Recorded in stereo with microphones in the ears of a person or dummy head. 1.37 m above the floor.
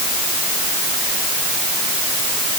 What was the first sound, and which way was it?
Only background noise.